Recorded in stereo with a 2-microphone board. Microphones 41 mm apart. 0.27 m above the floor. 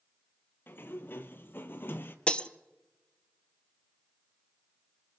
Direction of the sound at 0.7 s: 60° left (ahead or behind).